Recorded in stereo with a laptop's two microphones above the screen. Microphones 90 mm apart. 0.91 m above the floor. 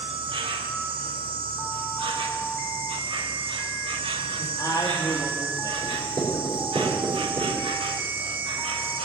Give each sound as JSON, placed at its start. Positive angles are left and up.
{"t": 0.0, "sound": "an insect", "side_deg": -80, "distance_m": 1.0}
{"t": 4.4, "sound": "a man speaking", "side_deg": 40, "distance_m": 1.7}
{"t": 5.8, "sound": "writing", "side_deg": -50, "distance_m": 3.5}